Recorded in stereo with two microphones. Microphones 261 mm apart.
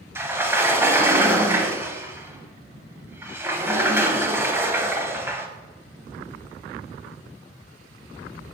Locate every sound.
0.1 s a sliding door: 10° right (ahead or behind), 0.9 m